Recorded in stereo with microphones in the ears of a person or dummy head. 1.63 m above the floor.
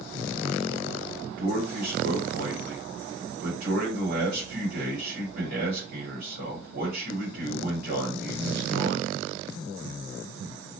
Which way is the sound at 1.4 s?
60° right (ahead or behind).